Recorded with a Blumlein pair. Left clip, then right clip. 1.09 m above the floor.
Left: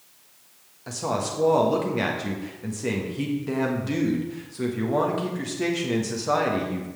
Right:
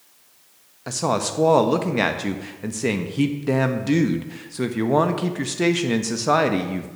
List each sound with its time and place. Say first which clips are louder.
0.9 s a woman speaking: right 4 dB; 70° right, 1.2 m